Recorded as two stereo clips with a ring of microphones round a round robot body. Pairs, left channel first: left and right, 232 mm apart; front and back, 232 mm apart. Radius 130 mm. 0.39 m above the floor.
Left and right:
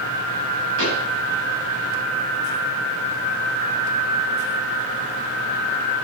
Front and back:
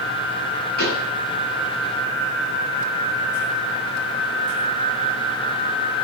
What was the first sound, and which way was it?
A pop, 45° right.